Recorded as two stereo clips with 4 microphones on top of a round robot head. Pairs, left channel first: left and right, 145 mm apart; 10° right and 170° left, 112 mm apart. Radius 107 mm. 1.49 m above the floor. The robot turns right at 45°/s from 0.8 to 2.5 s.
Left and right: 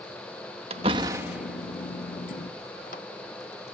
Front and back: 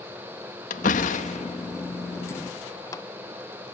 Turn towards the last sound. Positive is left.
turn(degrees=45)